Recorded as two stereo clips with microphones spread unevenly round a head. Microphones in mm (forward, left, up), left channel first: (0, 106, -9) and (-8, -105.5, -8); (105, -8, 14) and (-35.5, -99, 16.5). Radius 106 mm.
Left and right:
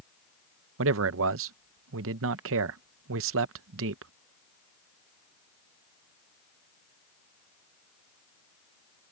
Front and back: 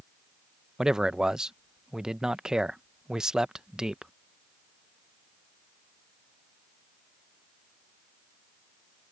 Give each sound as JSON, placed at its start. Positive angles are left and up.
{"t": 0.8, "sound": "a man speaking", "azimuth_deg": -60}